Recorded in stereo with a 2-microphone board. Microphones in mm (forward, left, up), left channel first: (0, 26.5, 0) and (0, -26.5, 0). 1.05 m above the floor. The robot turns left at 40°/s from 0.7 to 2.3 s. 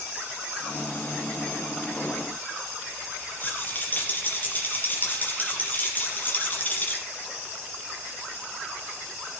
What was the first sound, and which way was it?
A rattle, 35° left (ahead or behind).